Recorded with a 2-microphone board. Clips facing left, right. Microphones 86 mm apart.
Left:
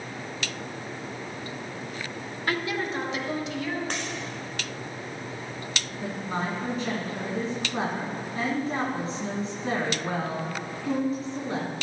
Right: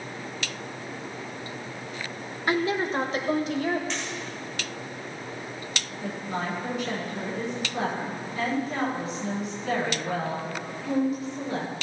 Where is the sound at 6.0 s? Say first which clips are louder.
Left 1 dB; 35° left (ahead or behind), 5 m.